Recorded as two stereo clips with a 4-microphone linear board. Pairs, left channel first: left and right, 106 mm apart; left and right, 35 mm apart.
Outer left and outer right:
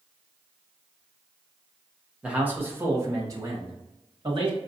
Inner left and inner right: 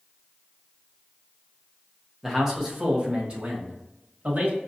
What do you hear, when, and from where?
2.2 s a man speaking: 10° right (ahead or behind), 1.1 m; by 4.6 s 50° right (ahead or behind), 2.0 m